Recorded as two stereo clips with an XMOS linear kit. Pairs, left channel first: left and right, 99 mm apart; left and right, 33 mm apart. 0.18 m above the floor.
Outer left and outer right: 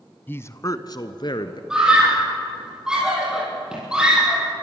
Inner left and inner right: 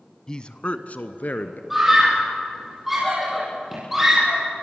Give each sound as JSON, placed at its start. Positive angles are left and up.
{"t": 0.3, "sound": "a man speaking", "side_deg": 20, "distance_m": 1.0}
{"t": 1.7, "sound": "a scream", "side_deg": -10, "distance_m": 7.0}